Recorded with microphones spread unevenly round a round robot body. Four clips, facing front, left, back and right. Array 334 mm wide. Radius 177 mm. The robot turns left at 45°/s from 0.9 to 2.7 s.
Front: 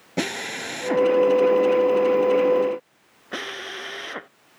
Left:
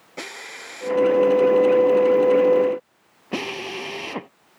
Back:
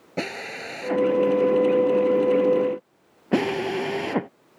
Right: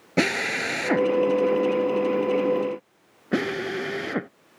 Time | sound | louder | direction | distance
0.2 | a drill | right 13 dB, front 3 dB | 75° right | ?